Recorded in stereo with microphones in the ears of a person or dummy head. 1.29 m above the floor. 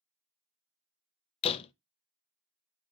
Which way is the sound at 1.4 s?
30° left (ahead or behind).